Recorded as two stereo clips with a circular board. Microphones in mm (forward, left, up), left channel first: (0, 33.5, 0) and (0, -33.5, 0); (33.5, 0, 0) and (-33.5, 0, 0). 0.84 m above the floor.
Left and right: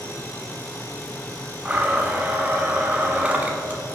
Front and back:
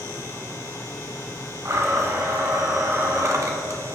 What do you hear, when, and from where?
1.6 s a blender: 155° right, 1.2 m